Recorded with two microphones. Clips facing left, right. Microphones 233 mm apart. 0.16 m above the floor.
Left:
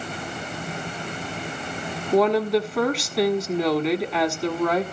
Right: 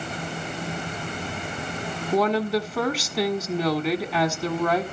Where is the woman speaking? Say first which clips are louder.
Left 3 dB; centre (ahead or behind), 1.1 m.